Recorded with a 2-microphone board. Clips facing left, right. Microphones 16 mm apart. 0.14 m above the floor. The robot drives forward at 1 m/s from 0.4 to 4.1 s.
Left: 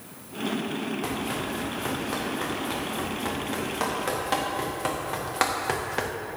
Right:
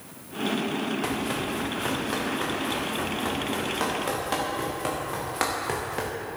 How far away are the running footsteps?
About 3 m.